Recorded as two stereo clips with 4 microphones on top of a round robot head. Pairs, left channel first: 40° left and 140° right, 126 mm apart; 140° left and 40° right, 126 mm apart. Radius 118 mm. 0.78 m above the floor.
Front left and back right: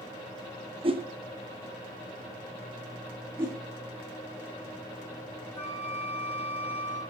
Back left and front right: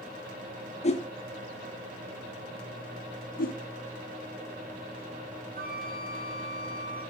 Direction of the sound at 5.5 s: 35° right.